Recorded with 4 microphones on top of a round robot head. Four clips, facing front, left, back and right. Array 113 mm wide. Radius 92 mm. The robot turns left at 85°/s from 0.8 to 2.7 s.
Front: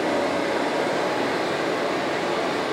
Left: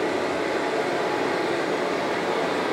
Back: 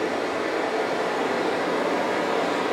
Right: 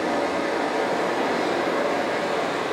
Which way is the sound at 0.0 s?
35° right.